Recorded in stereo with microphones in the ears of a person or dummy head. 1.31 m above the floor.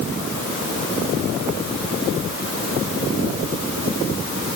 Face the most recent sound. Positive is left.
No sound to turn to.